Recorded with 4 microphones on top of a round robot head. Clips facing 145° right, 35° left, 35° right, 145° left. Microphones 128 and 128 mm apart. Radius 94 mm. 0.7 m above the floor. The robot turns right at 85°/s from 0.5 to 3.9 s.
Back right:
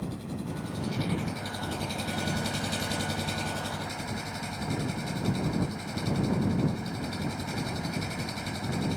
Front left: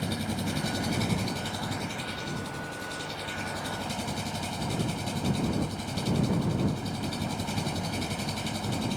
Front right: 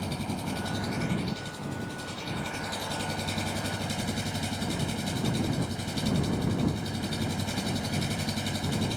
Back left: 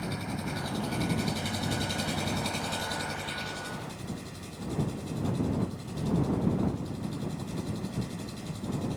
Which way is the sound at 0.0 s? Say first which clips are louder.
Front left 4 dB, front right 2 dB; 35° left.